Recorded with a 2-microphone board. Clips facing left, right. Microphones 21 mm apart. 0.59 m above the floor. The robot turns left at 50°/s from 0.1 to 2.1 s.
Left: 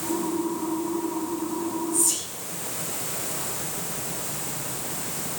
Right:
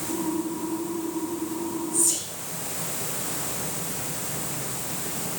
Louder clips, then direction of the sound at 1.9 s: Even; 10° right (ahead or behind).